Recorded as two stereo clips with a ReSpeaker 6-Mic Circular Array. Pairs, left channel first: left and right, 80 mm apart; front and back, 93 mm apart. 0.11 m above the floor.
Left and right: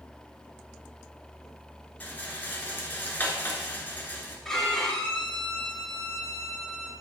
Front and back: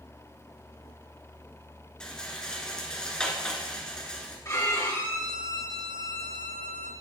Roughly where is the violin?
Ahead.